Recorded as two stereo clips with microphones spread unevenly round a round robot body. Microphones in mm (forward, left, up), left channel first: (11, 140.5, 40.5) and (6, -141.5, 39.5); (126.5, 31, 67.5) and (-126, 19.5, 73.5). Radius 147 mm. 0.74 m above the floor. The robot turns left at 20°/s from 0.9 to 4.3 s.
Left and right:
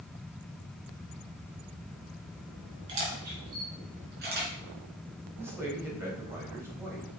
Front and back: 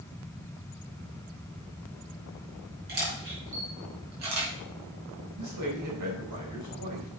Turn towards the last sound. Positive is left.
turn(degrees=-175)